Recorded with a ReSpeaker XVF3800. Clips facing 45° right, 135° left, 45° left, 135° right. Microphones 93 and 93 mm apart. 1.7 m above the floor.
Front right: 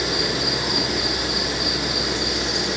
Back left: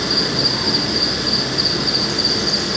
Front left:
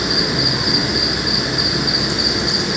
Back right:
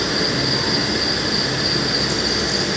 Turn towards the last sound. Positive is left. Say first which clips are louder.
# back left 2 dB, front left 1 dB
turn(degrees=120)